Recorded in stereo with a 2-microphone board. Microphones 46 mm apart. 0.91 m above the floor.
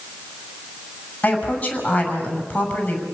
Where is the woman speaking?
30° left (ahead or behind), 7 m.